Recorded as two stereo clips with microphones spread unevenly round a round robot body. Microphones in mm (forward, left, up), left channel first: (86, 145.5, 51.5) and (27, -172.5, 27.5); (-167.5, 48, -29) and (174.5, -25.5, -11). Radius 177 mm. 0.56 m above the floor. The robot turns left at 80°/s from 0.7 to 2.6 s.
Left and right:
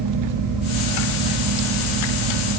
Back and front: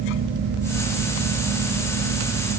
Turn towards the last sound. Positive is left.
No sound to turn to.